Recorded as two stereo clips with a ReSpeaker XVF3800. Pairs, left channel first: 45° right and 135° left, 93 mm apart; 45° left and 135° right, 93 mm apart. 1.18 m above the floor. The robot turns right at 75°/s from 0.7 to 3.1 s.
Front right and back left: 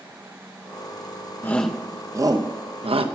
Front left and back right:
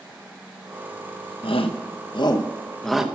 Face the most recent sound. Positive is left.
turn(degrees=150)